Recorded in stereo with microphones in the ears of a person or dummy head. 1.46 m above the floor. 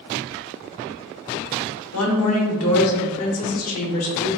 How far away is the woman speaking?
About 1.3 m.